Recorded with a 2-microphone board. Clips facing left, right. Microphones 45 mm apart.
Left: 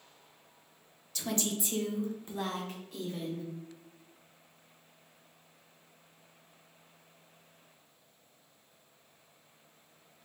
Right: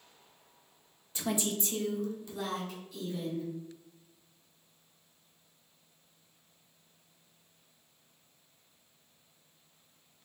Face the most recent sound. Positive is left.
turn(degrees=60)  # may be behind; listen again after turning